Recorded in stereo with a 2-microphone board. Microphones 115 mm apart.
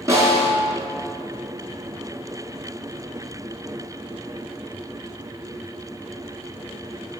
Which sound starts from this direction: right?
A snare drum, at 0.1 s.